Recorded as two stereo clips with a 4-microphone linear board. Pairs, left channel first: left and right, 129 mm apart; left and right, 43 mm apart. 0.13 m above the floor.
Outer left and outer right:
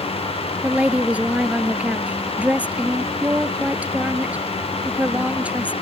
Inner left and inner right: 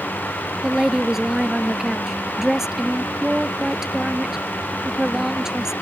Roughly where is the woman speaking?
Centre.